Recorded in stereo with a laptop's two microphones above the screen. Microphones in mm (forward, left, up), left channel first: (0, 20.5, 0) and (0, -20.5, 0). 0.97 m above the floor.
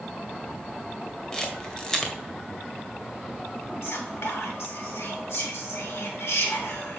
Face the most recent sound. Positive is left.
turn(degrees=80)